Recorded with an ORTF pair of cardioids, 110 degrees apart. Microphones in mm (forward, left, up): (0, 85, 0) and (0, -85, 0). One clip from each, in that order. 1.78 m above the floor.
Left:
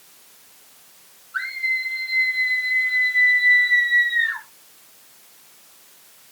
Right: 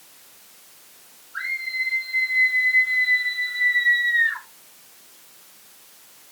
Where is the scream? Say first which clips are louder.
Left 3 dB; 60° left, 7.5 m; by 4.4 s 30° left, 7 m.